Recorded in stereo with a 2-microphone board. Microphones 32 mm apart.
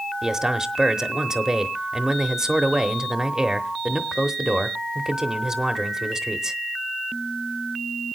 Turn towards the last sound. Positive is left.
turn(degrees=-20)  # may be behind; listen again after turning